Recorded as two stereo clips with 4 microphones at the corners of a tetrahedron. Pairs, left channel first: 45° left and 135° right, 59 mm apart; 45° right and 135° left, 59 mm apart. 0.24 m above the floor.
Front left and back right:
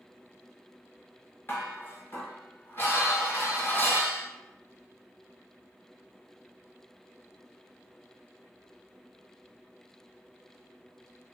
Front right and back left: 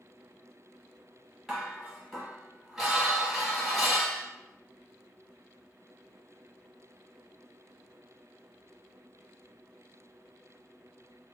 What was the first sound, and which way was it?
Dishes clattering, 50° left.